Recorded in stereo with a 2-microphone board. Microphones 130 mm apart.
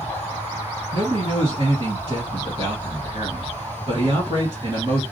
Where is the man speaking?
40° right (ahead or behind), 2.5 m.